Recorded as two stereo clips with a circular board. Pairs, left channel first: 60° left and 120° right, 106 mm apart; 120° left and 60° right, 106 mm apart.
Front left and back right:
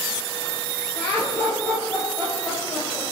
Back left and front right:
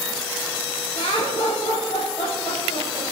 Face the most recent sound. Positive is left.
turn(degrees=135)